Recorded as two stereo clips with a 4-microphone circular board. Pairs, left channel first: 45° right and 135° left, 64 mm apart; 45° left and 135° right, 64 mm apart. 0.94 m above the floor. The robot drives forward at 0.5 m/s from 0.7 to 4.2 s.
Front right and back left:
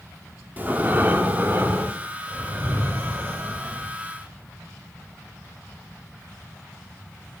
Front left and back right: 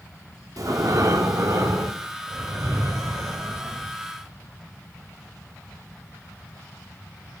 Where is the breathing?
165° right, 1.2 m; by 4.0 s 175° right, 3 m.